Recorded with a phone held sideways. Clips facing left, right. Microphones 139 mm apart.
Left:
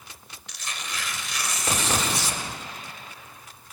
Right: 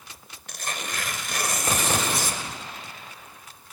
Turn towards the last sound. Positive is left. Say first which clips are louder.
# right 4 dB
turn(degrees=-50)  # may be behind; listen again after turning